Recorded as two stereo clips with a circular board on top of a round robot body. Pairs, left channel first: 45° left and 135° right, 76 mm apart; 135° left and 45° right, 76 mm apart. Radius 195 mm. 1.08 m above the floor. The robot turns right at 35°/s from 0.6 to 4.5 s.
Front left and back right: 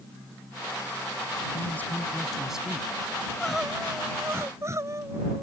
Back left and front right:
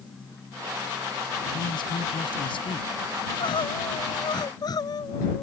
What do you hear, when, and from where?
1.5 s a man speaking: 105° left; by 2.9 s 150° left
3.2 s crying: 125° left; by 5.4 s 170° left